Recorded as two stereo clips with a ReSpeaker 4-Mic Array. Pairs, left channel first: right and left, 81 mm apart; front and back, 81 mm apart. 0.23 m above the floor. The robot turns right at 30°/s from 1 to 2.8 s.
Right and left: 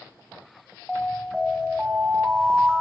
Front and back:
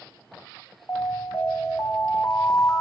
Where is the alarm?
15° right, 2.5 m; by 2.8 s 40° left, 2.5 m.